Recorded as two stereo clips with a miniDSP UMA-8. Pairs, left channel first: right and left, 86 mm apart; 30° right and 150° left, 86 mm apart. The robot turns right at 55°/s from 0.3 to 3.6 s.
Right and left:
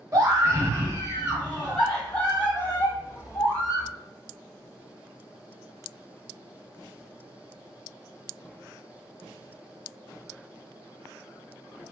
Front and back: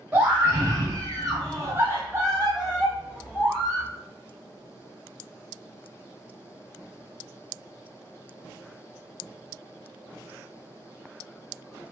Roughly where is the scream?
Left.